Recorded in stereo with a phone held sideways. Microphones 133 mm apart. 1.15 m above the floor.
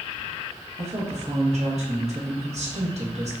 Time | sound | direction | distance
0.8 | a woman speaking | 60° right (ahead or behind) | 1.2 m